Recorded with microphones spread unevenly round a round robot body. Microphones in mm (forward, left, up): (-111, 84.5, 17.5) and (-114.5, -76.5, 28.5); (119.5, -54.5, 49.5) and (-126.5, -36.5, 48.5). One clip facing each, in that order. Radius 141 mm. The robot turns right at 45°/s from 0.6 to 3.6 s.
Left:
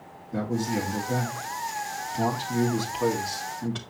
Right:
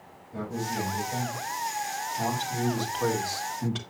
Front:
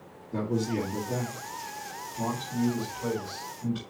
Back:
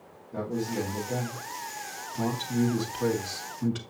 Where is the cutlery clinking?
I don't hear cutlery clinking.